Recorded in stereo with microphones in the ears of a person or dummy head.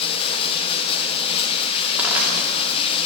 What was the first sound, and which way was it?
Running water, 30° left (ahead or behind).